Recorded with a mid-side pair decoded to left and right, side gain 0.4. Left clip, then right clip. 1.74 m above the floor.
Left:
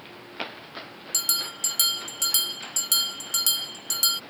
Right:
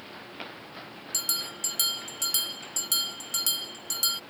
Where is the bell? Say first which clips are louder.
Left 4 dB; 30° left.